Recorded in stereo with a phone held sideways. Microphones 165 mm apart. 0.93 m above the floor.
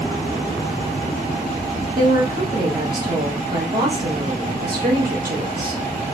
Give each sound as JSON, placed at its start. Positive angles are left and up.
{"t": 1.9, "sound": "a woman speaking", "side_deg": -60, "distance_m": 1.5}